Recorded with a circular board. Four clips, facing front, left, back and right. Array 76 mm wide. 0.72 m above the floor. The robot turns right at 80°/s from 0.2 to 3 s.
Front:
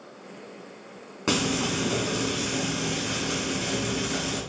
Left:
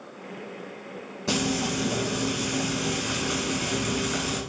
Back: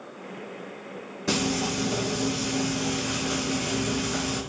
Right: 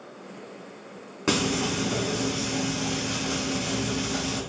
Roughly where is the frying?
Ahead right.